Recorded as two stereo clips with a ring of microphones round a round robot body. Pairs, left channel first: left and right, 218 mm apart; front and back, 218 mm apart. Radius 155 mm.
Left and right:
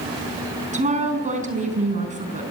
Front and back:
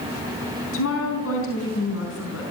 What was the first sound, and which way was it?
A woman speaking, 35° right.